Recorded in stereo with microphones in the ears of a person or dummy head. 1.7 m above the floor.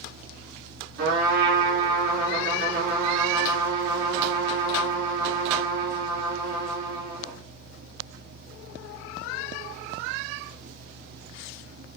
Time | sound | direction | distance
1.0 | a trumpet | 60° right (ahead or behind) | 2.5 m